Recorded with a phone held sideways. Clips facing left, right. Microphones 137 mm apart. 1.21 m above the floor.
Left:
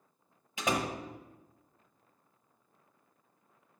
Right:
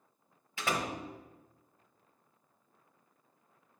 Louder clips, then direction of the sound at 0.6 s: Left 2 dB; 20° left (ahead or behind).